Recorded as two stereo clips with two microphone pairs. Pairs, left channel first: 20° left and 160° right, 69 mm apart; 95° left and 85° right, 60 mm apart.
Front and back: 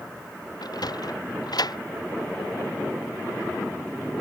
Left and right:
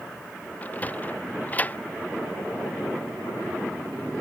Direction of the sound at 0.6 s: 35° left.